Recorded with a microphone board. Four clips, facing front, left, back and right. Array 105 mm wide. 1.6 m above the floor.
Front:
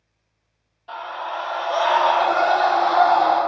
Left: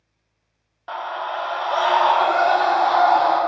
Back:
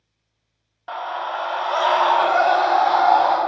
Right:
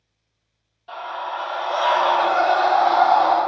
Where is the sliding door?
I don't hear a sliding door.